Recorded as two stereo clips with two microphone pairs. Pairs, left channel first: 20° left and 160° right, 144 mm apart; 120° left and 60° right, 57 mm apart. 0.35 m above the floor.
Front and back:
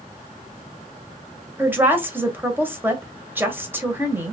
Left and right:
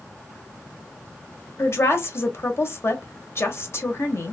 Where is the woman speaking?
130° left, 1.2 m.